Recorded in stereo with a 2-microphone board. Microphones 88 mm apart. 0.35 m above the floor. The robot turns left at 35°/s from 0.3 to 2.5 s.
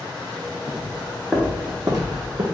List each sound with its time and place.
0.7 s footsteps: 35° left (ahead or behind), 1.1 m; by 2.4 s 70° right (ahead or behind), 1.1 m